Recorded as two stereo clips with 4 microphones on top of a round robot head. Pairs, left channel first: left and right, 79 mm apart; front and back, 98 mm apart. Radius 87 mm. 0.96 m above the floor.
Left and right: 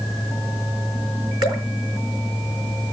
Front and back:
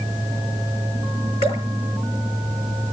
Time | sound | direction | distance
1.4 | dripping | 60° right | 4.5 m